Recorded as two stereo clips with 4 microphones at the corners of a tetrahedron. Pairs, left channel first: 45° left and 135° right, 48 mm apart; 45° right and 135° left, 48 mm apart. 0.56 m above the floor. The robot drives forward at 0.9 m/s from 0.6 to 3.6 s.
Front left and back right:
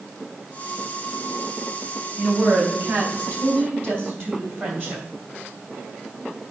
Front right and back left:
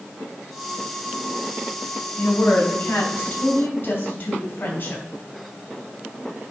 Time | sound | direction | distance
2.2 | a woman speaking | 70° right | 3.5 m